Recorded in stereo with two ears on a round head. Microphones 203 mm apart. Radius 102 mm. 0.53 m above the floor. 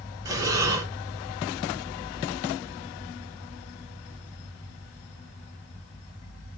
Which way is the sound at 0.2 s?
15° right (ahead or behind).